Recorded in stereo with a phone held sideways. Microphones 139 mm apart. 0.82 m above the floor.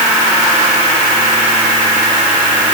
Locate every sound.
Only background noise.